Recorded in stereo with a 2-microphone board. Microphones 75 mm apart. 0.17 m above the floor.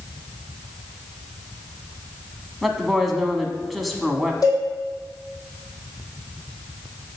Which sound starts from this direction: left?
A cowbell, at 4.4 s.